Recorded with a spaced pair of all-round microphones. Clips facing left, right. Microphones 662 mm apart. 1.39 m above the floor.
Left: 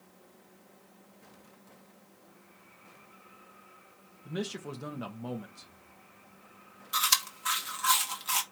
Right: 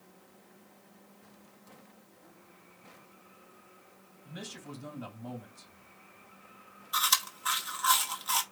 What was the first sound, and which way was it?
A man speaking, 80° left.